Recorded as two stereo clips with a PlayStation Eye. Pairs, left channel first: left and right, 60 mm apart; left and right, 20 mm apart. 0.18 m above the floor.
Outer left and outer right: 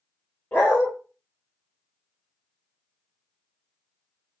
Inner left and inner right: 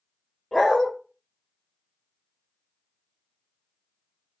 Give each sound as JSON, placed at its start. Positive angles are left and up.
{"t": 0.5, "sound": "a dog barking", "side_deg": 35, "distance_m": 1.6}